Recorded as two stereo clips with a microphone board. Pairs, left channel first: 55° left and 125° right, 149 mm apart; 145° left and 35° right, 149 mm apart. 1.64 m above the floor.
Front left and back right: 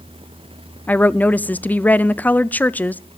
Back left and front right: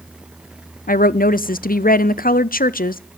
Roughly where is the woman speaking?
Behind left.